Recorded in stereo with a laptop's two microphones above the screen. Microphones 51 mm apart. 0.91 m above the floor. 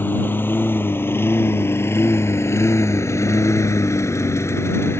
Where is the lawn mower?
40° left (ahead or behind); by 5.0 s 60° left (ahead or behind).